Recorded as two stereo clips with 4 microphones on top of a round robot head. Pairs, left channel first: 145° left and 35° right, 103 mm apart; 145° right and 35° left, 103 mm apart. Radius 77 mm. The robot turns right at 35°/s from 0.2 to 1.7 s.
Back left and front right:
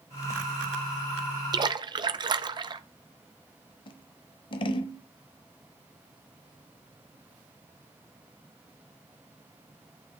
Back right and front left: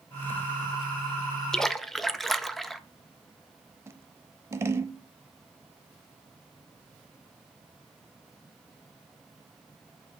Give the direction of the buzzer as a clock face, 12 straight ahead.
I don't hear a buzzer.